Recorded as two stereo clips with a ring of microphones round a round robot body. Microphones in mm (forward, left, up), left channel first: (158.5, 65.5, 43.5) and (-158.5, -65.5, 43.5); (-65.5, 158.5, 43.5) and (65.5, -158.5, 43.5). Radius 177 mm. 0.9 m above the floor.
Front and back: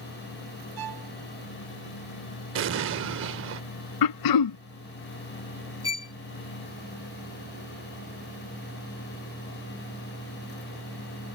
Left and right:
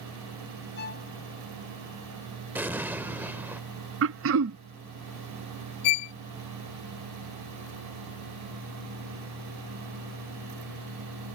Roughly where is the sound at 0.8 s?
Behind.